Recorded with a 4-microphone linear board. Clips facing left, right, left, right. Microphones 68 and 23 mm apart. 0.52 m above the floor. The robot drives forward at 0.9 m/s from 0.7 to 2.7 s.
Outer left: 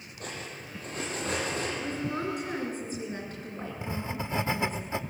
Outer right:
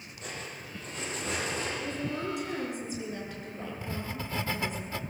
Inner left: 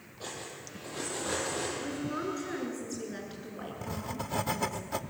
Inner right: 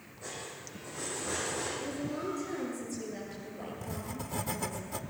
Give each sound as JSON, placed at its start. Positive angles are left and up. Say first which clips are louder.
{"t": 0.2, "sound": "cutlery clinking", "louder": "outer left 1 dB, inner left 1 dB", "side_deg": 55, "distance_m": 9.0}
{"t": 1.8, "sound": "a woman speaking", "louder": "outer left 2 dB, inner left 1 dB", "side_deg": 45, "distance_m": 8.0}
{"t": 3.8, "sound": "writing", "louder": "outer left 5 dB, inner left 6 dB", "side_deg": 20, "distance_m": 0.7}